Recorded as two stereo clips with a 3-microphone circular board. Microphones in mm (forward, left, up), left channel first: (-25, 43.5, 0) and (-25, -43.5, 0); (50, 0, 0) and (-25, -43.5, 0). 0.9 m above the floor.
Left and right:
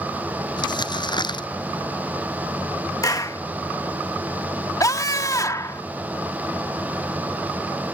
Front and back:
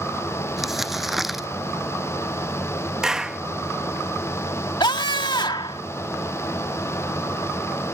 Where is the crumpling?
125° left.